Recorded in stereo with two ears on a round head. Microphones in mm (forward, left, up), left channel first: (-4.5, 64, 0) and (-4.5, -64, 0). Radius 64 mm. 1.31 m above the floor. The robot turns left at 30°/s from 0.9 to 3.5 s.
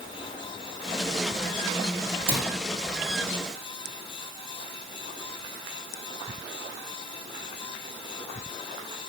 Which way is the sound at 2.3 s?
35° right (ahead or behind).